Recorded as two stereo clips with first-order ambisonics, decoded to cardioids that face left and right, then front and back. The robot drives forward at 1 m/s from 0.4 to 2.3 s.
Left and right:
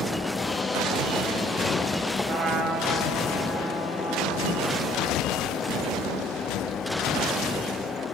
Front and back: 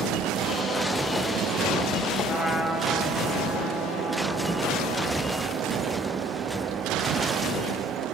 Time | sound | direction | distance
2.3 | a trumpet | 100° right | 1.3 m